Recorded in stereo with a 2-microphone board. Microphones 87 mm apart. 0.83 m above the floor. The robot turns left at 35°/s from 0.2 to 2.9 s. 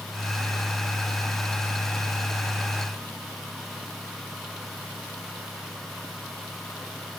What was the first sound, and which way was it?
Only background noise.